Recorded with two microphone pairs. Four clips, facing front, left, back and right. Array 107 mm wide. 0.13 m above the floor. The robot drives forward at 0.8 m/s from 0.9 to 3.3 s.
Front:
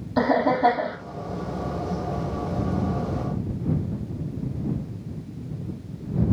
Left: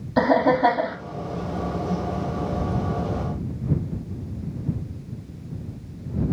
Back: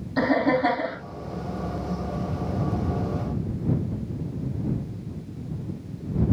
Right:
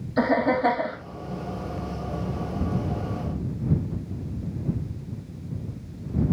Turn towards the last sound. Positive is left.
turn(degrees=90)